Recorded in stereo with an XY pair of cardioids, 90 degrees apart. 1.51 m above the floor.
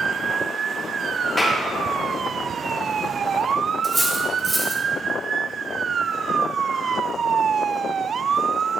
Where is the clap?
10° left, 2.0 m.